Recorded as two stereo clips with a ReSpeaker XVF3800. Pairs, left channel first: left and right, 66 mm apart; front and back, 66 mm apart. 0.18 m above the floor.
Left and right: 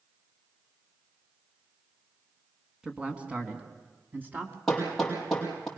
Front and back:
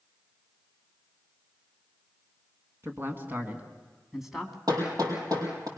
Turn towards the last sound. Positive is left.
turn(degrees=175)